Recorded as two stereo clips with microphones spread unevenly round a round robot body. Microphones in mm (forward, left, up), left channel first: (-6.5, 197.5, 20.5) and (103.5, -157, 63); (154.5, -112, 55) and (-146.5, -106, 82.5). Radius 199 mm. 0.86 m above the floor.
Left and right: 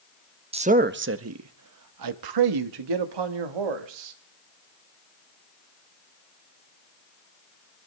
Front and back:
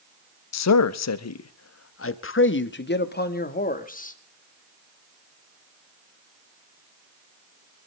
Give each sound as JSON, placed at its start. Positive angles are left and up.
{"t": 0.5, "sound": "a man speaking", "azimuth_deg": 5, "distance_m": 1.2}